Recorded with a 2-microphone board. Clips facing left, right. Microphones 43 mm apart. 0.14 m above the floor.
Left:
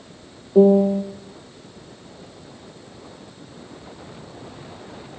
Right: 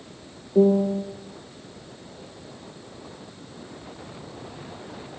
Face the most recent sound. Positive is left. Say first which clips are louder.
# left 5 dB
turn(degrees=30)  # may be behind; listen again after turning